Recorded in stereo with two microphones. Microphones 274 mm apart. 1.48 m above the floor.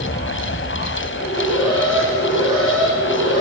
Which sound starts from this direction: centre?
An alarm, at 1.2 s.